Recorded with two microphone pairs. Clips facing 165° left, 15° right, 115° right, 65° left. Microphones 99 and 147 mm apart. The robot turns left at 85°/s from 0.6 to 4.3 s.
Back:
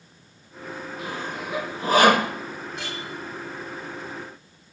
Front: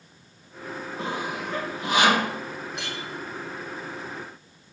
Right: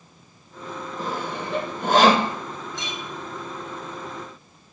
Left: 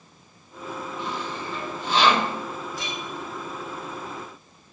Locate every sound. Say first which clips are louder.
1.0 s sawing: front 3 dB, right 5 dB; 70° right, 0.8 m; by 2.3 s straight behind, 0.8 m
2.7 s a clink: back 1 dB, even; 20° right, 3 m; by 3.0 s 35° right, 3 m